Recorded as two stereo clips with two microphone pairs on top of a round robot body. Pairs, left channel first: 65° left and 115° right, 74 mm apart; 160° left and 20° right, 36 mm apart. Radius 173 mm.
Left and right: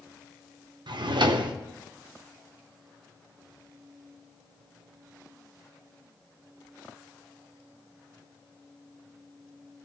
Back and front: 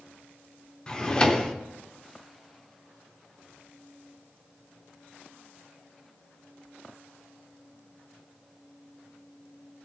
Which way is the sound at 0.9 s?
130° right.